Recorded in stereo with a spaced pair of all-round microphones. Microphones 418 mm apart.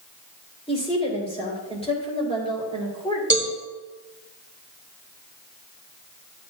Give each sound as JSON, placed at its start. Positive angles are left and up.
{"t": 0.7, "sound": "a woman speaking", "side_deg": 15, "distance_m": 3.5}
{"t": 3.3, "sound": "a cowbell", "side_deg": -35, "distance_m": 1.5}